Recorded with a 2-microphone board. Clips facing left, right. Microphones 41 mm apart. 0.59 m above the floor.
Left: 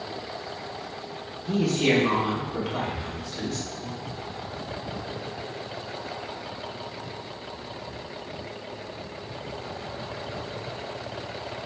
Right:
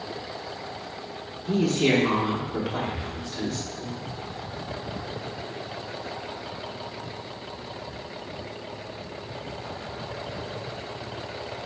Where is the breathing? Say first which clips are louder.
Even; 10° right (ahead or behind), 0.9 m.